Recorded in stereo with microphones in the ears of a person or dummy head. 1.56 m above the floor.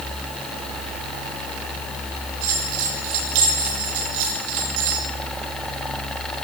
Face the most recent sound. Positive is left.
turn(degrees=-80)